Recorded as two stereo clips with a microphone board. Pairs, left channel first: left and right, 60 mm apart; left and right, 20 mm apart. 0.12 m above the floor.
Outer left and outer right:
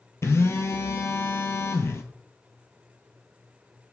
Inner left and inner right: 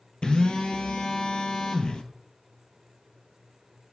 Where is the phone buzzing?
50° left (ahead or behind), 0.5 m.